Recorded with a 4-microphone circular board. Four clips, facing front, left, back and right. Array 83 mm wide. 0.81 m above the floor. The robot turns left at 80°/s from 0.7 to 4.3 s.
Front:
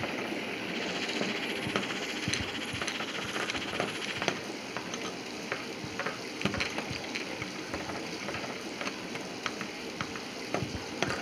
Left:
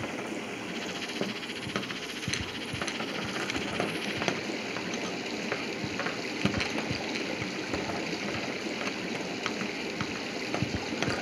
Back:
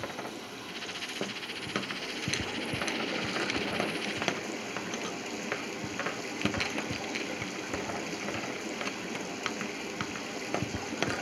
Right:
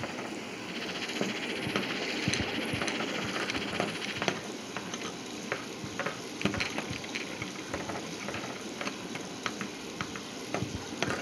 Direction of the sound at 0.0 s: 30° left.